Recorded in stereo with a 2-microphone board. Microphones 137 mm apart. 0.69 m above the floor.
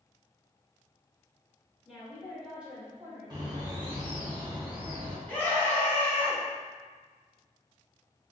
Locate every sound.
1.9 s a woman speaking: centre (ahead or behind), 1.9 m; by 4.3 s 50° right (ahead or behind), 0.9 m
3.3 s a bird: 30° right (ahead or behind), 0.8 m
5.3 s a scream: 15° left (ahead or behind), 1.3 m